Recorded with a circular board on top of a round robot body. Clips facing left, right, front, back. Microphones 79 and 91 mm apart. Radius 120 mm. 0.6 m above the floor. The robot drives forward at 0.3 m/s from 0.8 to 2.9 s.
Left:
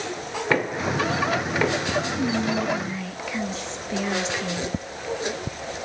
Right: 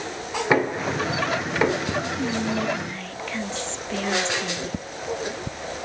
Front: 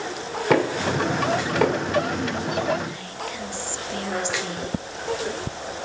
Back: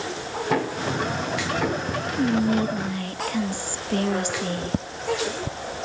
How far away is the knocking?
About 3 m.